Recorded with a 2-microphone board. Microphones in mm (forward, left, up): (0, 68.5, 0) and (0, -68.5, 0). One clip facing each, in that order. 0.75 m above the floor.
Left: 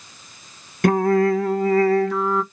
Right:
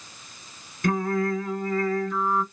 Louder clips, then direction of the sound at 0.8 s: Left 8 dB; 75° left (ahead or behind).